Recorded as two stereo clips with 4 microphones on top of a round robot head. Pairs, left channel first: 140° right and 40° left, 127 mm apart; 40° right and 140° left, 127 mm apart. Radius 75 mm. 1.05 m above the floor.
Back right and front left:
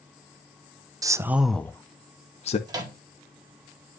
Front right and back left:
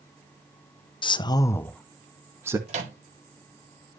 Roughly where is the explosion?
No explosion in this recording.